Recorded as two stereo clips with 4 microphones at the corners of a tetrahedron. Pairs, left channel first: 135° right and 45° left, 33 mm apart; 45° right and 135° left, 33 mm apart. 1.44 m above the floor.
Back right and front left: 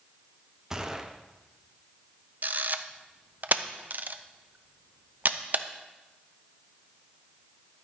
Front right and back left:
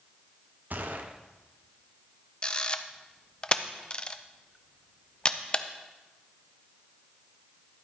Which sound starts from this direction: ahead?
A camera shutter, at 2.4 s.